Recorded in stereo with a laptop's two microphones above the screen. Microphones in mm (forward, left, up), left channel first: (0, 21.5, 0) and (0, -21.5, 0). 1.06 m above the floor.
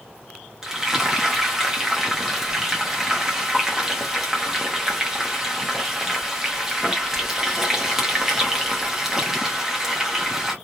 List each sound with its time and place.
0.6 s frying: 10° right (ahead or behind), 0.6 m